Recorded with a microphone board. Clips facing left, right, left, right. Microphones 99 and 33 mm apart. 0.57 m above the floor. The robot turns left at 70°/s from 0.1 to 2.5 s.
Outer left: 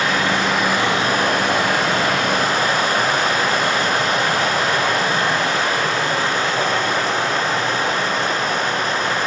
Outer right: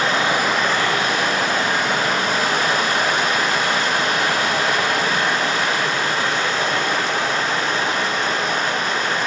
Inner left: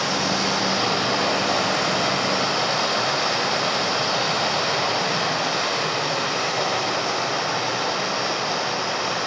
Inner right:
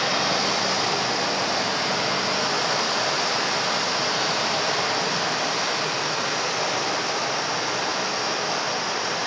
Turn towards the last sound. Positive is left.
turn(degrees=40)